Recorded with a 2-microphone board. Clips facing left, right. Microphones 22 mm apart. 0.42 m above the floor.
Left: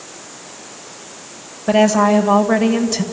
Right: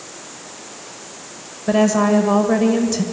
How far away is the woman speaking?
About 1.7 m.